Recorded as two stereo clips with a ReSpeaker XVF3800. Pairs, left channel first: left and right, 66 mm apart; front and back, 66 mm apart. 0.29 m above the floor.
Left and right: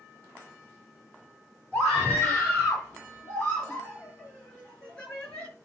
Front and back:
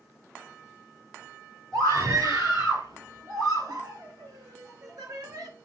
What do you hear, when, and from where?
1.7 s a scream: 150° left, 5.5 m; by 5.5 s 160° left, 4 m